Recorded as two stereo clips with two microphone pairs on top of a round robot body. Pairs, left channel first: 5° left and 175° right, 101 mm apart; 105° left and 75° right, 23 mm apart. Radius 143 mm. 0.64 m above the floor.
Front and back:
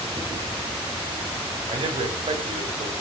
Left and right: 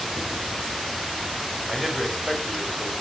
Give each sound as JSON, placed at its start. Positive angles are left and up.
{"t": 1.7, "sound": "a man speaking", "azimuth_deg": -165, "distance_m": 3.0}